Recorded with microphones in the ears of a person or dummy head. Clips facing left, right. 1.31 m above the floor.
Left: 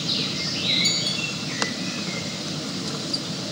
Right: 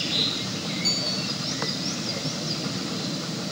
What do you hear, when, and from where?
0.8 s a bicycle bell: 20° left (ahead or behind), 5.5 m